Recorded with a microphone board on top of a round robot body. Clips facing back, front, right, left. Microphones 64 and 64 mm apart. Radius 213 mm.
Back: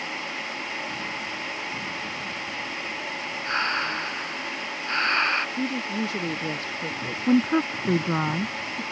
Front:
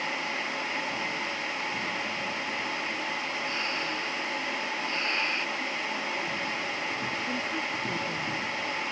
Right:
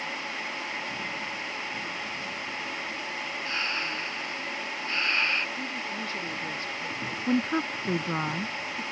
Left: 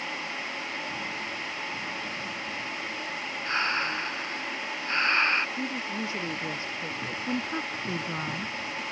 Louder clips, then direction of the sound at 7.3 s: Back 10 dB, right 6 dB; 155° right.